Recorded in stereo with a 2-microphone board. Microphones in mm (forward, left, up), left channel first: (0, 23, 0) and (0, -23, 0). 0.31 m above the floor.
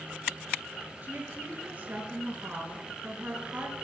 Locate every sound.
1.0 s a woman speaking: 35° right (ahead or behind), 5 m